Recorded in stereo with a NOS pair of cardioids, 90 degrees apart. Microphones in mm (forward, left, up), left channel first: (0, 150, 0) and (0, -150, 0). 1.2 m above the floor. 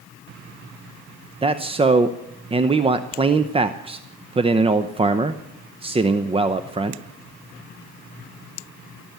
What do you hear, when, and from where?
1.4 s a man speaking: 20° right, 0.7 m